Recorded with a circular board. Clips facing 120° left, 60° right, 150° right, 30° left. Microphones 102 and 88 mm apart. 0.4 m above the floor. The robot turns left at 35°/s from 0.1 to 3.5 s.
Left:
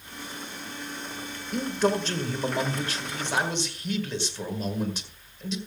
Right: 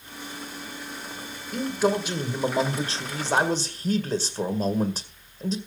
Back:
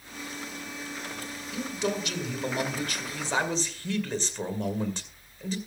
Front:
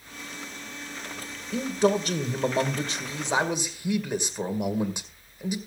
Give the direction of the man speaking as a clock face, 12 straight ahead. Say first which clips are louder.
Right 1 dB, front 8 dB; 11 o'clock.